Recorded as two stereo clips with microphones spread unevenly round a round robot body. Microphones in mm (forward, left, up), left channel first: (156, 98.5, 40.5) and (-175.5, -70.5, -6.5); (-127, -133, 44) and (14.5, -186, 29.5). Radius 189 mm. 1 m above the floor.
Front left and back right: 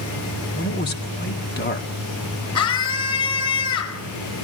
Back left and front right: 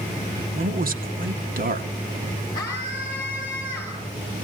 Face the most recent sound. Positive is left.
turn(degrees=80)